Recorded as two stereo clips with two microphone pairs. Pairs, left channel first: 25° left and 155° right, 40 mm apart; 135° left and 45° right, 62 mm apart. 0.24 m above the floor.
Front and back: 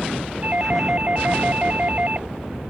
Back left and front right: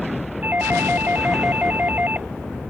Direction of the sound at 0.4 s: 105° right.